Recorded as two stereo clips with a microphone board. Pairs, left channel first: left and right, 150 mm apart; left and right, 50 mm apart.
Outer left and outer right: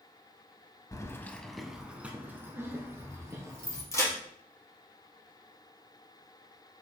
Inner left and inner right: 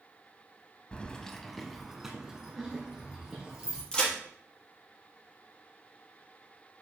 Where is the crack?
20° left (ahead or behind), 3 m.